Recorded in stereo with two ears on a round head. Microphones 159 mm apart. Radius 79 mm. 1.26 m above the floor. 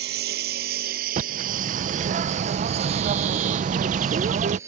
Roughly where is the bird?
Right.